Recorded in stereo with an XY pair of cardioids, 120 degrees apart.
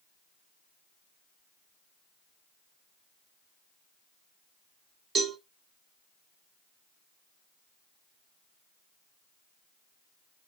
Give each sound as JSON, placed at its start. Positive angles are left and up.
{"t": 5.2, "sound": "a cowbell", "azimuth_deg": -45, "distance_m": 3.0}